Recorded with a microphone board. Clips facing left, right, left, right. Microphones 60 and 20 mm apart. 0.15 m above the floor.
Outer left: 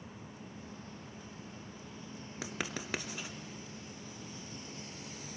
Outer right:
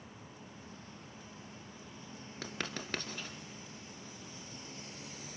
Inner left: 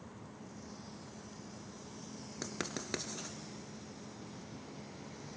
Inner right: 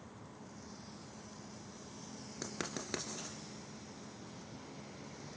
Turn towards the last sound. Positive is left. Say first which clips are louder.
# outer left 1 dB, inner left 1 dB
turn(degrees=10)  # may be behind; listen again after turning